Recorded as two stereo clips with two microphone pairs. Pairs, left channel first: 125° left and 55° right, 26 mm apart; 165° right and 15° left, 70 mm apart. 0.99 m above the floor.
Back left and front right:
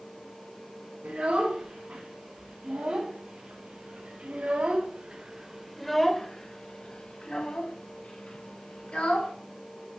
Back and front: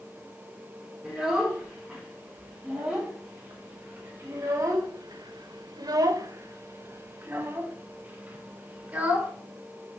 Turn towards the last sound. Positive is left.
turn(degrees=90)